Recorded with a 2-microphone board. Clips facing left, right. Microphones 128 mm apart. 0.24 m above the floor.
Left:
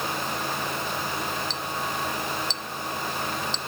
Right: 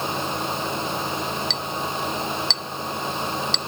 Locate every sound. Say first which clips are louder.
1.5 s a clink: right 3 dB; 70° right (ahead or behind)